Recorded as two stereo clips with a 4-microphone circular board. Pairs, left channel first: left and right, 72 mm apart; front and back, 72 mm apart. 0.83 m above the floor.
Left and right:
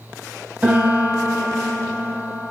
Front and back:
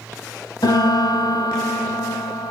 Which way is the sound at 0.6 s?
15° right.